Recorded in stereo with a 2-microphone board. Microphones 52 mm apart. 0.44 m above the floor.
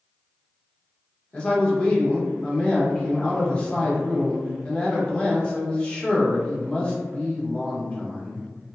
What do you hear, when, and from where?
1.3 s a man speaking: 20° left (ahead or behind), 0.8 m